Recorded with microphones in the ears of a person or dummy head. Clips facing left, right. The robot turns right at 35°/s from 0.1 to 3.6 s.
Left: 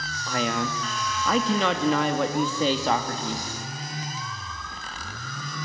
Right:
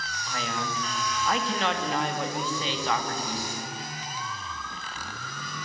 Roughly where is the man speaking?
Ahead left.